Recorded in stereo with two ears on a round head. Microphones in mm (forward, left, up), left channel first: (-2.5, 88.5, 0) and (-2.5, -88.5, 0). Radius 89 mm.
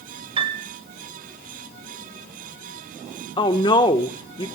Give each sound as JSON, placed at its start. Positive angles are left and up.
{"t": 0.4, "sound": "a piano", "side_deg": -25, "distance_m": 2.0}
{"t": 3.4, "sound": "a woman speaking", "side_deg": 25, "distance_m": 1.4}